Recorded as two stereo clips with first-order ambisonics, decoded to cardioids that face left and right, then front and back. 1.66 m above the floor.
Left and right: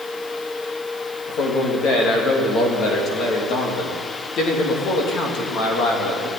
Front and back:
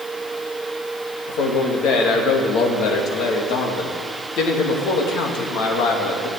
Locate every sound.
1.3 s a man speaking: 40° left, 3 m